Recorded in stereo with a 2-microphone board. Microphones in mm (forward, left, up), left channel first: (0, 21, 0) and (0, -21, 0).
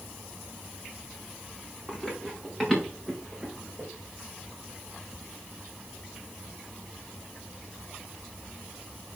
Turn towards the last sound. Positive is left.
turn(degrees=-5)  # may be behind; listen again after turning